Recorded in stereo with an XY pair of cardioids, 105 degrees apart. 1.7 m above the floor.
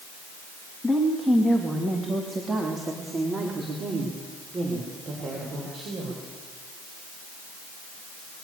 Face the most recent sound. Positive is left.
turn(degrees=-60)